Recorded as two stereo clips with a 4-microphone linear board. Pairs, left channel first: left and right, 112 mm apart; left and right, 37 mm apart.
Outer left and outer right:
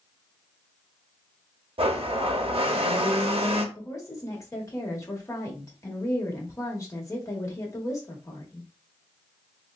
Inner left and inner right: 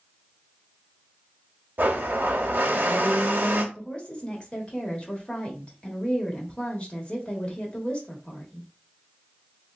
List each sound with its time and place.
1.8 s a blender: 55° right (ahead or behind), 0.6 m
3.8 s a woman speaking: 30° left (ahead or behind), 1.1 m